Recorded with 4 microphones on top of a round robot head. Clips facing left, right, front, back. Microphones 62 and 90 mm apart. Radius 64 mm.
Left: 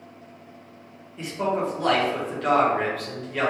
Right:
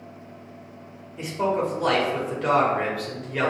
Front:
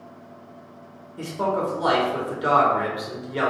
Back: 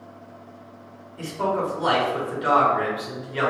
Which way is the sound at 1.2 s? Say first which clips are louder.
Right 1 dB, even; 15° right.